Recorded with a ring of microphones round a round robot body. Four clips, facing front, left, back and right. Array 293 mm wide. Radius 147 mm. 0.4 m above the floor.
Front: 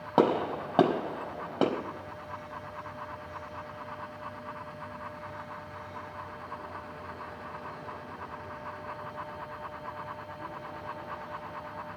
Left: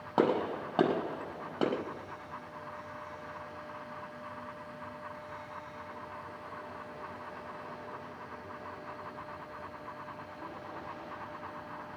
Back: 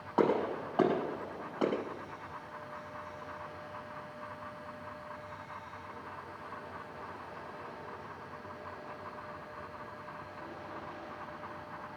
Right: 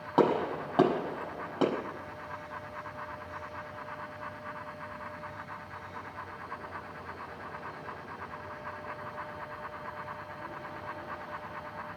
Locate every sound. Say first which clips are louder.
0.2 s a gunshot: right 2 dB, front 4 dB; 5° left, 4.5 m